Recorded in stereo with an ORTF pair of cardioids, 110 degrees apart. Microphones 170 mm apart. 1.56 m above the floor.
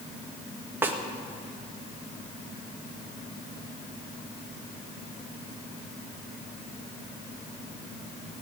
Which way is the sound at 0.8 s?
15° right.